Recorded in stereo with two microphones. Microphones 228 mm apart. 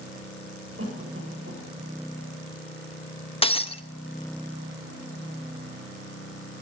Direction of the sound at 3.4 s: 25° left (ahead or behind).